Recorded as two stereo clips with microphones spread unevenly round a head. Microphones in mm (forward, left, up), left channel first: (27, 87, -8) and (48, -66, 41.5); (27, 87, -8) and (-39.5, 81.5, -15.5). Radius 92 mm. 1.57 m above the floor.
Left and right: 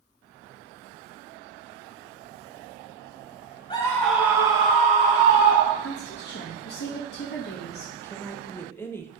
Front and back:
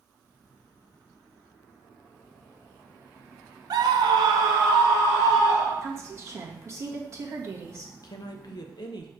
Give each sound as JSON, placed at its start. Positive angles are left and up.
{"t": 3.7, "sound": "a scream", "azimuth_deg": 175, "distance_m": 0.9}
{"t": 5.8, "sound": "a woman speaking", "azimuth_deg": 135, "distance_m": 2.0}
{"t": 8.0, "sound": "a woman speaking", "azimuth_deg": 20, "distance_m": 1.0}